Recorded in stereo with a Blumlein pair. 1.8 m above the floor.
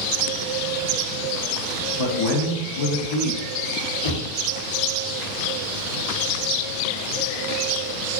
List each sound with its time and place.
2.0 s a man speaking: 50° left, 1.2 m
4.0 s knocking: 60° left, 1.3 m